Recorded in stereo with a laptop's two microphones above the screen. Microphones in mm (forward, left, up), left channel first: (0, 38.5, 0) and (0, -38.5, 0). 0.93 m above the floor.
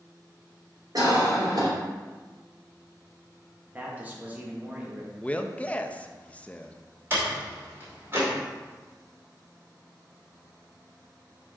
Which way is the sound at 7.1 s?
35° right (ahead or behind).